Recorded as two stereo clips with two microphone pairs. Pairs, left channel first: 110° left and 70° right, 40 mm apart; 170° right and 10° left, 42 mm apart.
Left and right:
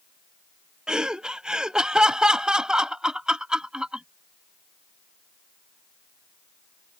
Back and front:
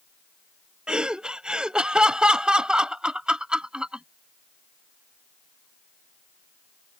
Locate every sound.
0.9 s laughter: 30° right